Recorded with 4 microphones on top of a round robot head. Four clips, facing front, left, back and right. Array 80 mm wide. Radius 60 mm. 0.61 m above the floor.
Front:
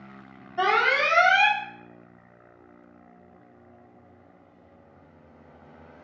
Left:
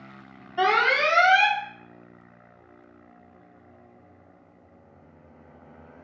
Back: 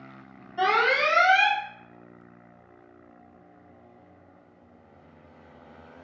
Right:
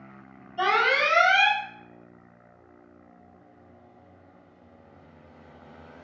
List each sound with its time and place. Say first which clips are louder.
0.6 s an alarm: left 1 dB, even; 65° left, 0.9 m